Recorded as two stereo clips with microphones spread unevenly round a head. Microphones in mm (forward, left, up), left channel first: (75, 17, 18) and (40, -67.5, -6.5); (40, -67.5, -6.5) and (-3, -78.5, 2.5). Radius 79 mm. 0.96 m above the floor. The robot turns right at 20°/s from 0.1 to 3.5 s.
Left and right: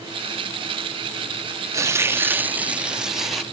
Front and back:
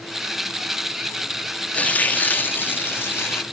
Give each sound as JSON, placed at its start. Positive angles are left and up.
{"t": 1.7, "sound": "tearing paper", "azimuth_deg": -50, "distance_m": 0.6}